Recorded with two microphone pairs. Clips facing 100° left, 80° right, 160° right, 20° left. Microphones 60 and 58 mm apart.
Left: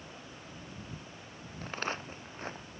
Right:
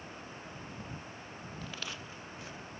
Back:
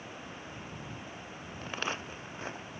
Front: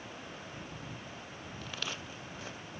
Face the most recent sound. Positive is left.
turn(degrees=145)